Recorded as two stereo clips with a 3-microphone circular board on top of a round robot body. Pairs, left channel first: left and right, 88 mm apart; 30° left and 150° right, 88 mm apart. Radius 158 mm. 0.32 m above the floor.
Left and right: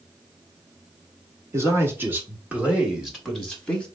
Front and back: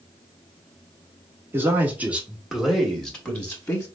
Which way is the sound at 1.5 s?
110° right.